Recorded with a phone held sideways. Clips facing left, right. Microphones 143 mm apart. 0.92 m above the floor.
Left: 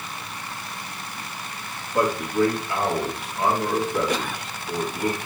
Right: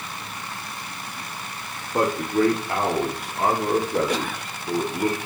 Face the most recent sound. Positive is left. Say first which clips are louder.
# even
turn(degrees=-50)  # may be behind; listen again after turning